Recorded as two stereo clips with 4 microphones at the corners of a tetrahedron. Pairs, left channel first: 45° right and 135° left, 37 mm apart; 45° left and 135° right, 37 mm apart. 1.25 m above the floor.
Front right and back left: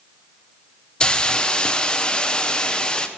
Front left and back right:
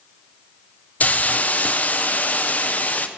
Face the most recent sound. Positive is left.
turn(degrees=15)